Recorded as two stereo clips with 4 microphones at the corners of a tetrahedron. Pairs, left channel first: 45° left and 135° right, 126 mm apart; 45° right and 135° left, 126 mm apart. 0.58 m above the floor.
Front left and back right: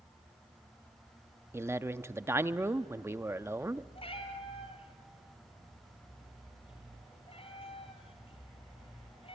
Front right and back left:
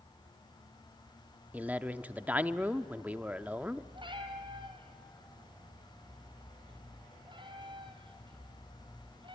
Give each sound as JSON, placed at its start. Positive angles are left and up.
{"t": 1.5, "sound": "a man speaking", "azimuth_deg": -170, "distance_m": 0.6}
{"t": 4.0, "sound": "a cat meowing", "azimuth_deg": 85, "distance_m": 2.5}